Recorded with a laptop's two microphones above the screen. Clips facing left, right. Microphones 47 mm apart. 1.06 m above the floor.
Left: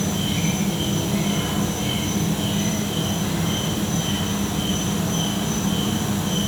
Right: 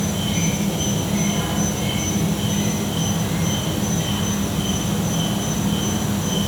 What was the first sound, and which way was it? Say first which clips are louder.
An insect: right 1 dB; 80° right.